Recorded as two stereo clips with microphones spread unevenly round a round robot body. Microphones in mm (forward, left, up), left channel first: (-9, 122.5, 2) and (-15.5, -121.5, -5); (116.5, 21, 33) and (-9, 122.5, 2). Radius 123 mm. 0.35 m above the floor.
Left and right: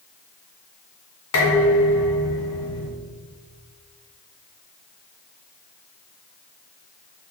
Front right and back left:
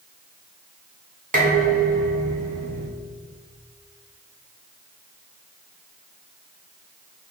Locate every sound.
1.3 s dishes clattering: 115° left, 2 m